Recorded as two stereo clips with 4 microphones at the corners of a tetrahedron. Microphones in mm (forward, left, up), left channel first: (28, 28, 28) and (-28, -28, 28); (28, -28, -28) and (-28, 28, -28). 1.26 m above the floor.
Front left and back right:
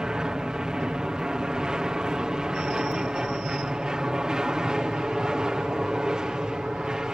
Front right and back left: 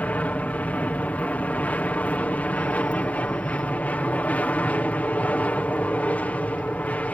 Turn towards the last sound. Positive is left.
turn(degrees=-70)